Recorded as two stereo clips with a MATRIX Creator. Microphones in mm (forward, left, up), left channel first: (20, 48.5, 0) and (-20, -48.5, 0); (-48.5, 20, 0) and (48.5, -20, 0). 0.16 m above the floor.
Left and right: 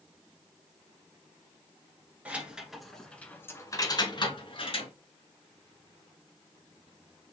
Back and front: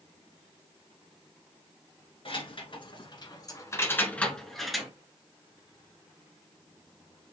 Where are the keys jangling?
175° left, 1.3 m; by 4.9 s 60° left, 1.3 m.